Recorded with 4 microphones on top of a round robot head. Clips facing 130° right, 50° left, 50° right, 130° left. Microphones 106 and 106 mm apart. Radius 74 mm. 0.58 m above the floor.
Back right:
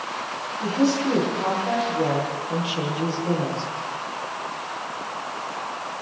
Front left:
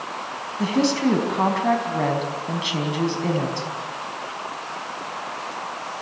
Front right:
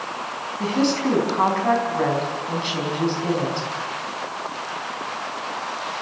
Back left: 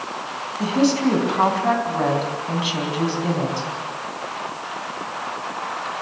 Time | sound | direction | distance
0.6 | a woman speaking | 50° left | 4.5 m